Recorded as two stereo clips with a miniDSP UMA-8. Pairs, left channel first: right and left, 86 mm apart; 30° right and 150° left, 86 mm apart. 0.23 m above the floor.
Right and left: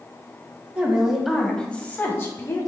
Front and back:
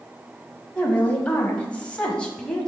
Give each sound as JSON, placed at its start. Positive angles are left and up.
{"t": 0.8, "sound": "a woman speaking", "azimuth_deg": 35, "distance_m": 1.1}